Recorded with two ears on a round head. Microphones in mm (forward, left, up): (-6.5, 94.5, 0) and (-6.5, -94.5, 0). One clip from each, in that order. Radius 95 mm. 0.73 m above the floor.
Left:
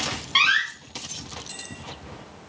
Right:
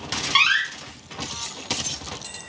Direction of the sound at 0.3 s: 20° right (ahead or behind).